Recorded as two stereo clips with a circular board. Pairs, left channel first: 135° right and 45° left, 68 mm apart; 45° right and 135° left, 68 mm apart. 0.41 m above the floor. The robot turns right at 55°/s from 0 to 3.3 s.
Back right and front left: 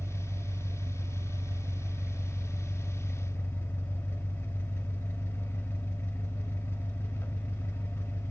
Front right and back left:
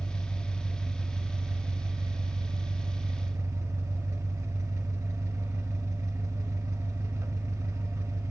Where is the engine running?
5° right, 0.9 m; by 8.3 s 175° left, 0.9 m.